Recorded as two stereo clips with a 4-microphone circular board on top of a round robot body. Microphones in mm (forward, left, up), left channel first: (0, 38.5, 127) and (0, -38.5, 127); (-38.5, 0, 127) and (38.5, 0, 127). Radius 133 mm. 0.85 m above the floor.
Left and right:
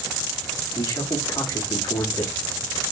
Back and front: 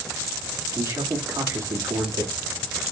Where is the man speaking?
50° left, 2 m.